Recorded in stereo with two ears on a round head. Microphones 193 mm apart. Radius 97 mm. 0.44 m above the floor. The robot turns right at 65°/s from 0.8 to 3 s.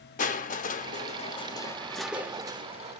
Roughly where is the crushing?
Left.